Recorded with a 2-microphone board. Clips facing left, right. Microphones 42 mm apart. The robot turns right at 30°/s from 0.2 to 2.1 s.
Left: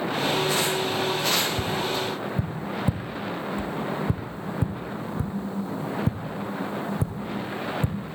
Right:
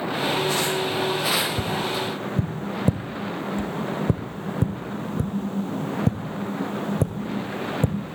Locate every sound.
1.6 s tapping: 85° right, 1.8 m; by 8.2 s 70° right (ahead or behind), 1.8 m